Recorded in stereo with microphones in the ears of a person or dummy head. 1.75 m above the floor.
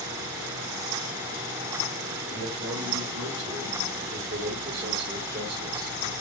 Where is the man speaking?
70° right (ahead or behind), 7.5 m; by 6.1 s 50° right (ahead or behind), 5 m.